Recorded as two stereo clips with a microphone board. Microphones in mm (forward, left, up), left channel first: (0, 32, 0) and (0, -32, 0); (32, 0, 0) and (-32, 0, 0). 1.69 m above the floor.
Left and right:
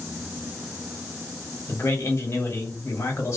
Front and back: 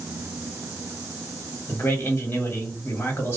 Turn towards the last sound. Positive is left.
turn(degrees=50)